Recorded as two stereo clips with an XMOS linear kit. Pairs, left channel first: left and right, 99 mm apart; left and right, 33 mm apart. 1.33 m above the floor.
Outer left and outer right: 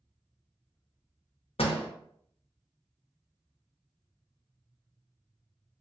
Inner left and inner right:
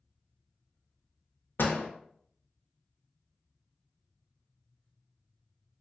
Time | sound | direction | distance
1.6 | a door slam | 75° left (ahead or behind) | 0.7 m